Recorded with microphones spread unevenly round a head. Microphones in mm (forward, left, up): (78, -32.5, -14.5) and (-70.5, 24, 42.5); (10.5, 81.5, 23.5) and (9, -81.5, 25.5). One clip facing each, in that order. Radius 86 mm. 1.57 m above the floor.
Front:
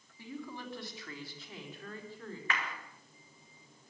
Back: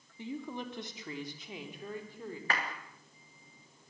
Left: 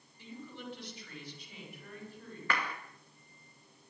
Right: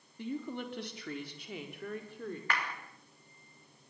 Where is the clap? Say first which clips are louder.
Back 2 dB, left 4 dB; 110° left, 2 m.